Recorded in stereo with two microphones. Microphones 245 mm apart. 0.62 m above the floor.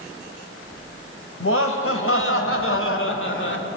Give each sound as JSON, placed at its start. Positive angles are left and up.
{"t": 1.4, "sound": "laughter", "side_deg": 60, "distance_m": 3.5}